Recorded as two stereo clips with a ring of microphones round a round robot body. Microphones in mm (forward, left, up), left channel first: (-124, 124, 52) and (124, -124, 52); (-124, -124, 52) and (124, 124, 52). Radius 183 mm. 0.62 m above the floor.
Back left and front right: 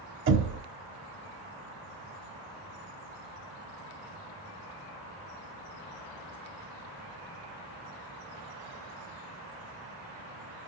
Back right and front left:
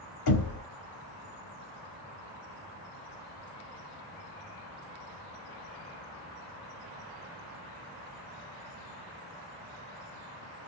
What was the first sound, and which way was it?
Knocking, 100° right.